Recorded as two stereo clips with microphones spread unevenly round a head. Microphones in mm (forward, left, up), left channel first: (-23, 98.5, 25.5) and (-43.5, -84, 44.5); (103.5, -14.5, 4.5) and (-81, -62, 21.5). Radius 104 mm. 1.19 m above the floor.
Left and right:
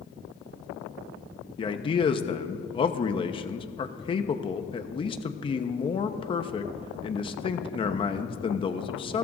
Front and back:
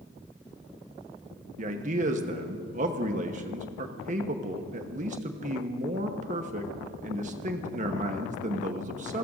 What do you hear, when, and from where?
1.6 s a man speaking: 140° left, 1.0 m